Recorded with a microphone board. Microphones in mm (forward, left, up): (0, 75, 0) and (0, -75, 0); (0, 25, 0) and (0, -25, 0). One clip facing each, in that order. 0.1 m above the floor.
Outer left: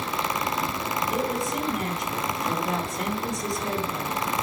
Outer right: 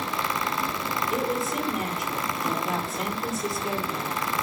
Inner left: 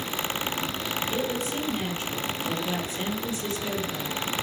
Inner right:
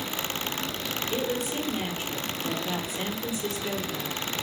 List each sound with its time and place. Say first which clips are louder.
1.1 s a woman speaking: outer right 1 dB, inner right 2 dB; 5° right (ahead or behind), 2.5 m